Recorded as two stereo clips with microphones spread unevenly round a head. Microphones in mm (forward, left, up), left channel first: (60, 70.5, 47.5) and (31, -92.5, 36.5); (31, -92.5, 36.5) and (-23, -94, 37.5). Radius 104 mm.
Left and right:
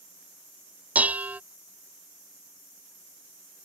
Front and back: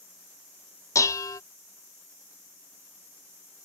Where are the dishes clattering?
20° right.